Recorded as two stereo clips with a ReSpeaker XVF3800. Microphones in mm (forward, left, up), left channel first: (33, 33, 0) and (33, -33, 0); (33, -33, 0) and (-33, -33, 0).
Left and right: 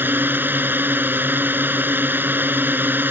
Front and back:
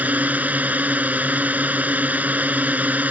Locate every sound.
0.0 s a drone: 130° right